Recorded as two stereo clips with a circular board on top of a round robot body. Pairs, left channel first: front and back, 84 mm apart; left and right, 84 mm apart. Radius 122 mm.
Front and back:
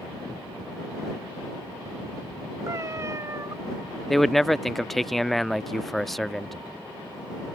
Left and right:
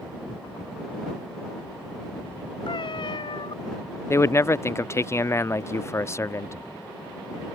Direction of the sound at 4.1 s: 85° left.